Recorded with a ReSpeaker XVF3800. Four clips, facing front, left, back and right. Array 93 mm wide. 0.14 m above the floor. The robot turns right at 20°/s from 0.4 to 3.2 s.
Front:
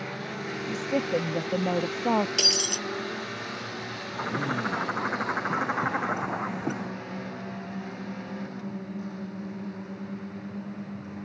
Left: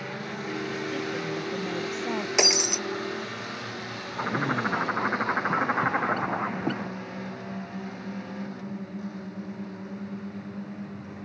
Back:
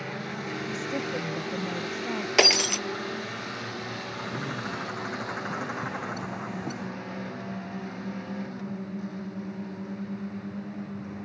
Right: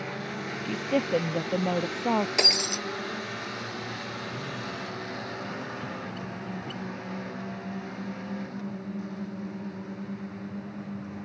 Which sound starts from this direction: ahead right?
A woman speaking, at 0.7 s.